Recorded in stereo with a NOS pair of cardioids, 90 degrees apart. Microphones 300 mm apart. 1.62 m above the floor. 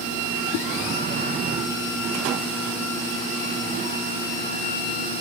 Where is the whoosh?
65° left, 0.5 m.